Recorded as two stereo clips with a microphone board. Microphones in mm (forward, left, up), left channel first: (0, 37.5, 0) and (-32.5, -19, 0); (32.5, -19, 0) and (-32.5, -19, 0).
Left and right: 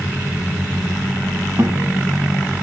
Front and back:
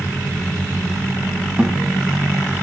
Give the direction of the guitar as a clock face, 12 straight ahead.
4 o'clock.